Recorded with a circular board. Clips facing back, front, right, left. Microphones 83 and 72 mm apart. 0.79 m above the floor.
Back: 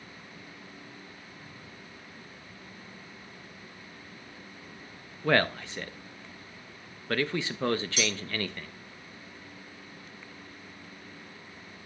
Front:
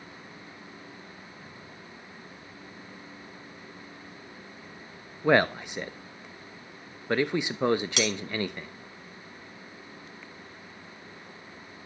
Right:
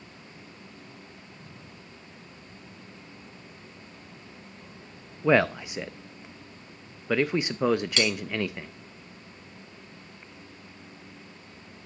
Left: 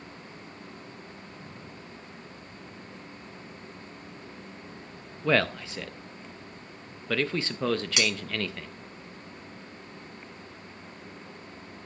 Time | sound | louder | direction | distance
5.2 | a man speaking | front 3 dB, right 3 dB | 45° right | 0.5 m
8.0 | cutlery clinking | front 3 dB, right 2 dB | 15° left | 2 m